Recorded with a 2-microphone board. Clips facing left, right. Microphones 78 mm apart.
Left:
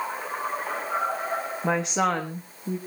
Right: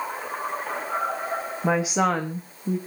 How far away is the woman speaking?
About 1.3 m.